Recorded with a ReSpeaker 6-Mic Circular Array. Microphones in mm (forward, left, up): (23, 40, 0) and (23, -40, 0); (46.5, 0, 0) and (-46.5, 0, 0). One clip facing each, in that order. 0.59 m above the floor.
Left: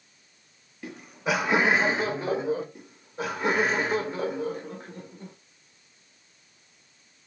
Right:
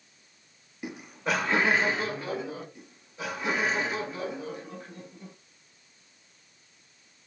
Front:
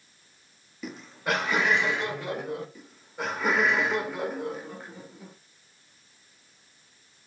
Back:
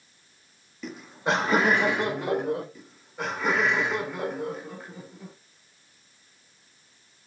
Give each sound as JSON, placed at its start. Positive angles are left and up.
{"t": 0.8, "sound": "laughter", "azimuth_deg": -75, "distance_m": 0.6}
{"t": 2.8, "sound": "laughter", "azimuth_deg": 90, "distance_m": 1.1}